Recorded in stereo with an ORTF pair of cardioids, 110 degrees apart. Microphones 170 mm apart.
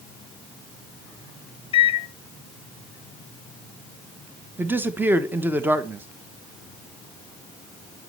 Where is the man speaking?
10° right, 0.9 m.